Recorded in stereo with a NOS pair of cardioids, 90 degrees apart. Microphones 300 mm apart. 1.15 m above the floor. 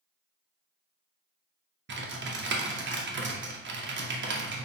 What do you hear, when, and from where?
1.9 s typing on a keyboard: 40° right, 1.0 m